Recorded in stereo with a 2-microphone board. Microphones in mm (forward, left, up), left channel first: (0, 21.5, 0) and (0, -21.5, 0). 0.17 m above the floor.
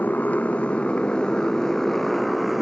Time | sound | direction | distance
0.0 | a motorcycle | 40° left (ahead or behind) | ?